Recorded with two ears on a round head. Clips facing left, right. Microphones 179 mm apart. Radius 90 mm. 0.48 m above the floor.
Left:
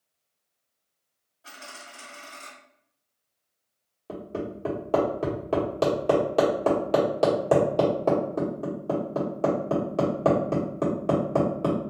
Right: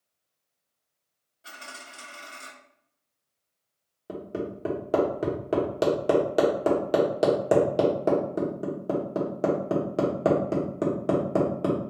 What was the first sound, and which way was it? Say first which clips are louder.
A dropped coin: left 1 dB; 30° right (ahead or behind).